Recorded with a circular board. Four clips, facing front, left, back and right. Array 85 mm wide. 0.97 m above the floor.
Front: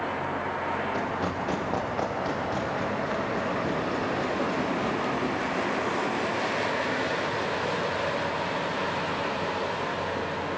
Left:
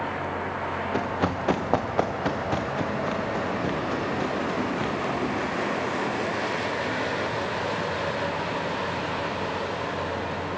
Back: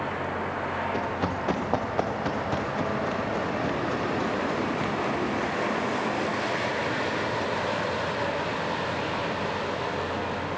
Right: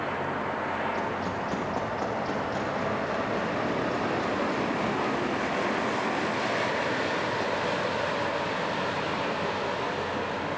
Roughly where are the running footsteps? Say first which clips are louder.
Left 3 dB, back 1 dB; left.